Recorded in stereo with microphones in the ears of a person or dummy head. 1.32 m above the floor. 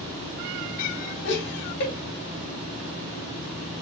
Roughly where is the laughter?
Left.